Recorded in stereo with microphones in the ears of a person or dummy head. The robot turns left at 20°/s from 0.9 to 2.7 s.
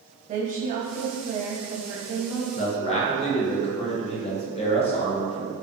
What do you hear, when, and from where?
0.3 s a woman speaking: 140° right, 0.6 m; by 2.5 s 170° right, 0.6 m
2.5 s a man speaking: 40° left (ahead or behind), 0.6 m; by 5.5 s 35° left (ahead or behind), 0.6 m